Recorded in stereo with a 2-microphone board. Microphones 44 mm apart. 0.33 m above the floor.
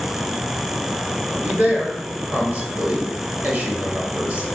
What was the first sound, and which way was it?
A man speaking, 35° right (ahead or behind).